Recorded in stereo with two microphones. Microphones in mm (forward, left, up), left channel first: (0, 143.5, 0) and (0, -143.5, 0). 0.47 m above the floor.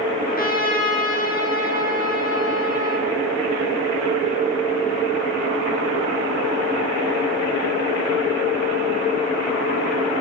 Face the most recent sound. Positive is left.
turn(degrees=30)  # may be behind; listen again after turning